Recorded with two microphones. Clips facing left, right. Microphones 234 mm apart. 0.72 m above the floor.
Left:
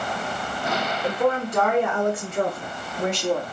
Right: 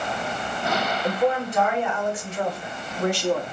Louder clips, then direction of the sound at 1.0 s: Even; 75° left (ahead or behind).